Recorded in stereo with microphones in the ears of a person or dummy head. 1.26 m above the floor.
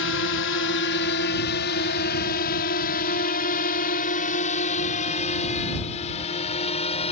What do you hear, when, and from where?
0.0 s a drone: 60° left (ahead or behind); by 7.1 s 30° left (ahead or behind)